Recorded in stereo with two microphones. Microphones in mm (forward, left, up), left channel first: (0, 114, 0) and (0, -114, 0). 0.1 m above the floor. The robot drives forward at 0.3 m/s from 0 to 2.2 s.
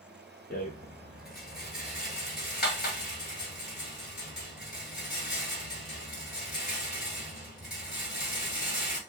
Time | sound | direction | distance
0.5 | a rattle | 45° left (ahead or behind) | 1.1 m